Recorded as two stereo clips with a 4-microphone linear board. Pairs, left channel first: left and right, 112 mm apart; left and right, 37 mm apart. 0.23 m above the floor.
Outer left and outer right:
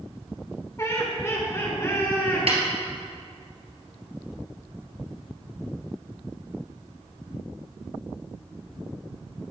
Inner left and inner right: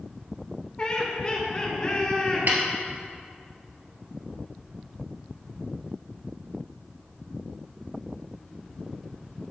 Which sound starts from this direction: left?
Laughter, at 0.8 s.